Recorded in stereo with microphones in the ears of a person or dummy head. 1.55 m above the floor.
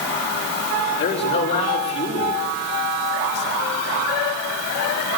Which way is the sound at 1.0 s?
35° left (ahead or behind).